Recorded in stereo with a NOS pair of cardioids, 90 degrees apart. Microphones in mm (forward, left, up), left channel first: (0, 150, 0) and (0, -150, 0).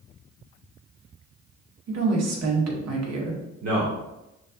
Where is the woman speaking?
60° right, 1.5 m.